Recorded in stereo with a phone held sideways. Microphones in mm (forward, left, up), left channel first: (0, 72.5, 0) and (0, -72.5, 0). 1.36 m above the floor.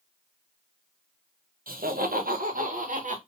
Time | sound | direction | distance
1.7 | laughter | 80° right | 1.1 m